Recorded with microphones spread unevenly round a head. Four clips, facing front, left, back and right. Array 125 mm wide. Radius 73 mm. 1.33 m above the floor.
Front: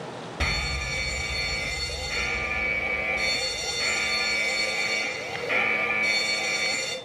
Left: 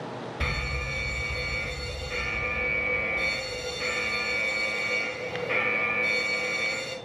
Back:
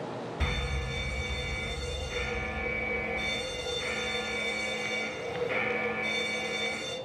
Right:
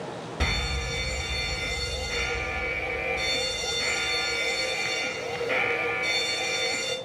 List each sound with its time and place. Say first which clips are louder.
0.4 s a fire alarm: right 4 dB, front 3 dB; 35° right, 6 m